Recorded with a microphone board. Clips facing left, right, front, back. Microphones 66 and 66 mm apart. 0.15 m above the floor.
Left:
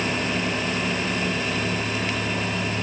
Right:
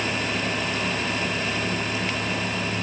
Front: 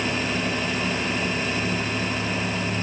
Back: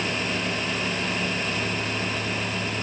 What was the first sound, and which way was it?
Only background noise.